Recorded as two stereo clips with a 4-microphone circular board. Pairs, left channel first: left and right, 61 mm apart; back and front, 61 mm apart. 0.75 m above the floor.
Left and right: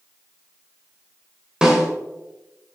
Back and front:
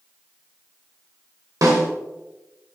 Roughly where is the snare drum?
Ahead.